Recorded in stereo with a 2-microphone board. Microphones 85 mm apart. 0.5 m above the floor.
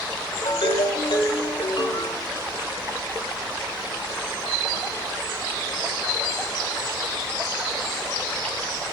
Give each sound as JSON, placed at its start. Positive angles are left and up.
{"t": 0.5, "sound": "a ringtone", "side_deg": 75, "distance_m": 1.4}